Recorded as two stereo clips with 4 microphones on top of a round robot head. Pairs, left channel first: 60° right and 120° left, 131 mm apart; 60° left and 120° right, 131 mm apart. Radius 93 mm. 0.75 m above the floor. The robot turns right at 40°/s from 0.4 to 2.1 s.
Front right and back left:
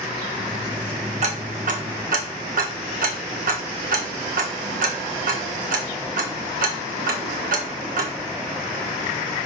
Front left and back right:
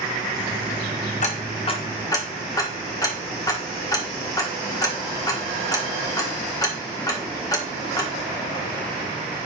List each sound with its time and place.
1.2 s ticking: 90° left, 1.4 m; by 8.1 s 125° left, 1.4 m